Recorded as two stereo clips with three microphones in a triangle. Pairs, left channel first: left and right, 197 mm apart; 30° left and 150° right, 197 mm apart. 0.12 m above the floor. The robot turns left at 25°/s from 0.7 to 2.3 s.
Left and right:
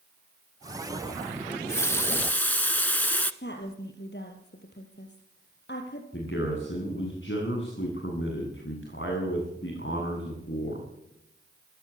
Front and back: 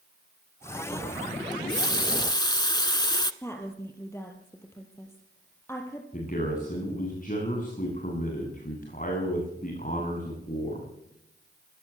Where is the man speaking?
75° left, 10 m.